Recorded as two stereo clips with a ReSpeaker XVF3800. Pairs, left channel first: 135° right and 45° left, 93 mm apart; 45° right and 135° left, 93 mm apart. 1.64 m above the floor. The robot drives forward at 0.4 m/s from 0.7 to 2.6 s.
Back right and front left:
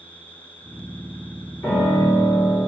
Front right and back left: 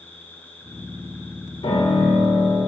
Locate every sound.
0.0 s an insect: 120° right, 2.5 m; by 2.7 s 135° right, 3 m
1.6 s a piano: 70° right, 4.5 m; by 2.6 s 75° right, 4 m